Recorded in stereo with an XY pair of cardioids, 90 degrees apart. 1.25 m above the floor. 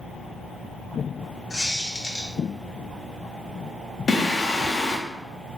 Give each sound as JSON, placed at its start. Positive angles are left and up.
{"t": 1.5, "sound": "a squeak", "azimuth_deg": 30, "distance_m": 1.1}
{"t": 4.1, "sound": "singing", "azimuth_deg": 45, "distance_m": 0.6}